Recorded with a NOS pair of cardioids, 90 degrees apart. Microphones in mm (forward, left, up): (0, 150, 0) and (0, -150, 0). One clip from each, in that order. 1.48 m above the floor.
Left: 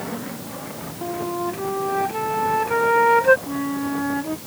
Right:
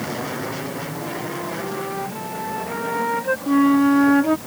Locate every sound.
1.0 s a flute: 50° left
3.5 s a flute: 45° right